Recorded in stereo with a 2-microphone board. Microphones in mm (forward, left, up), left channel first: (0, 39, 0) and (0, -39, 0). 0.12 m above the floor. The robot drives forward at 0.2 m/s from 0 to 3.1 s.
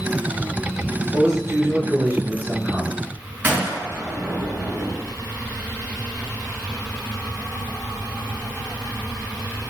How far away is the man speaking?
About 1.7 m.